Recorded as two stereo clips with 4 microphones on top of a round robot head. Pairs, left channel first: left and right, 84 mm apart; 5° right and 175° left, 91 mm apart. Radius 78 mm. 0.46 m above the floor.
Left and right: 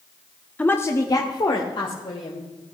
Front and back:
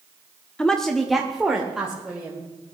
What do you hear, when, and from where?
0.6 s a woman speaking: 60° left, 1.0 m; by 2.5 s 95° left, 2.5 m